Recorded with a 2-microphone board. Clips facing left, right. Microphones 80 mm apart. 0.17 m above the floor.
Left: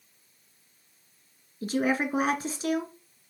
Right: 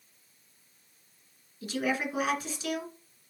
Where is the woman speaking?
40° left (ahead or behind), 2 m.